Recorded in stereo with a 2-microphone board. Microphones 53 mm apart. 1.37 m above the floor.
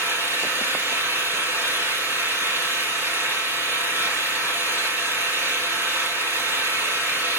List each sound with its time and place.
0.0 s an engine running: 45° right (ahead or behind), 3 m